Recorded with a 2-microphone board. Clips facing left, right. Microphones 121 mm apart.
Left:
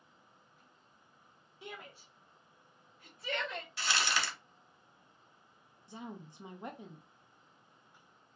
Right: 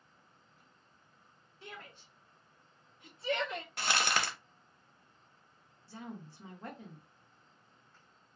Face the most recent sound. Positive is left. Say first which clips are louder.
# even
turn(degrees=20)  # may be behind; listen again after turning